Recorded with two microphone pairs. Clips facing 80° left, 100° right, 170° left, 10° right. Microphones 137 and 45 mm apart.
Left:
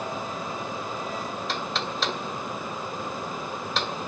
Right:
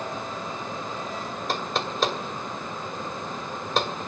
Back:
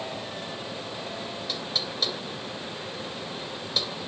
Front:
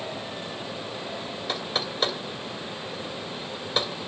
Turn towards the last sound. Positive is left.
turn(degrees=-65)